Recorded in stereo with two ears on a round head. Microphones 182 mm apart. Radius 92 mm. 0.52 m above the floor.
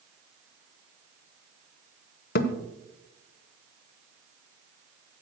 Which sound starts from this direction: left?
A thud, at 2.4 s.